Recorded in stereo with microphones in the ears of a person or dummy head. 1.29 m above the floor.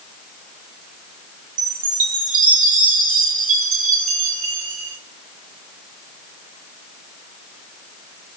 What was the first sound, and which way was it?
A chime, 45° right (ahead or behind).